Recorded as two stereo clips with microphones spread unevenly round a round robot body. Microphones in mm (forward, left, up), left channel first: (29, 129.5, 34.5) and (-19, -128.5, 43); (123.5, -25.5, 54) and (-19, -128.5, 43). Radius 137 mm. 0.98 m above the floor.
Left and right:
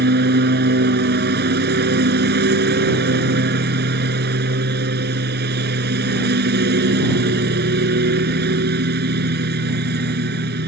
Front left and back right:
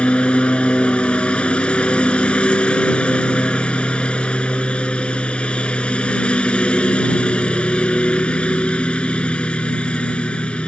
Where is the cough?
No cough in this recording.